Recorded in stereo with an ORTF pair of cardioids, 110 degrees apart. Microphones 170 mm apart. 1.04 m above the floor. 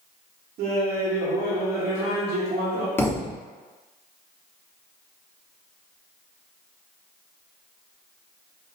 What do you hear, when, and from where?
0.6 s laughter: 65° right, 1.0 m
3.0 s a thud: 15° left, 1.0 m